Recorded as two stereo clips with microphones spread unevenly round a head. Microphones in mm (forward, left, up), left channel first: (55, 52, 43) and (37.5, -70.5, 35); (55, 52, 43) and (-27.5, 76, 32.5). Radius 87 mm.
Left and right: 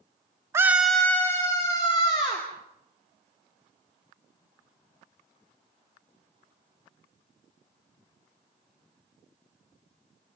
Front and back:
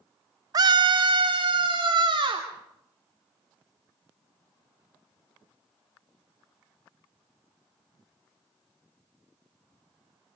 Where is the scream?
165° right, 1.0 m; by 2.5 s 140° left, 3 m.